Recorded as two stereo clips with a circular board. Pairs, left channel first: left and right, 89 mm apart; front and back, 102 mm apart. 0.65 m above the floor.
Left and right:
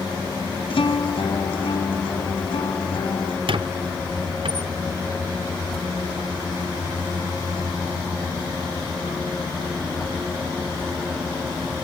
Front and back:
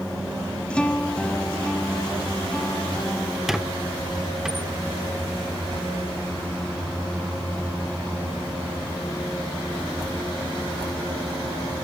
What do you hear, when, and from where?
0.7 s a guitar: 80° left, 1.6 m
3.5 s a squeak: 95° right, 0.9 m